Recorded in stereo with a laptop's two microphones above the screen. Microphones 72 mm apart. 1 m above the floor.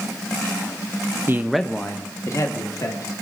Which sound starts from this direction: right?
A man speaking, at 1.3 s.